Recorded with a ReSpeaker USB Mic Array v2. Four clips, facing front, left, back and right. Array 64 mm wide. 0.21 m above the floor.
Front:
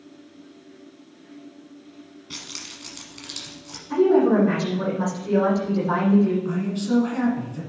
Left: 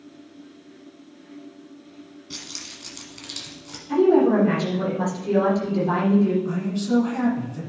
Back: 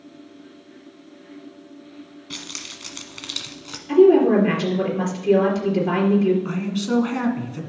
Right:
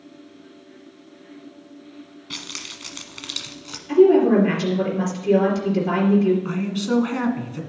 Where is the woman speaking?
145° right, 3.5 m.